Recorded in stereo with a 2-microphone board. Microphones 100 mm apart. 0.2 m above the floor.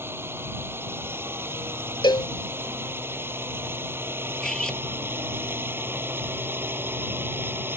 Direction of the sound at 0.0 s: 20° right (ahead or behind).